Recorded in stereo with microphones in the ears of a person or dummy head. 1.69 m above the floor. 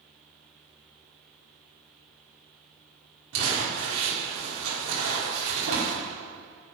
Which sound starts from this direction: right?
Crumpling, at 3.3 s.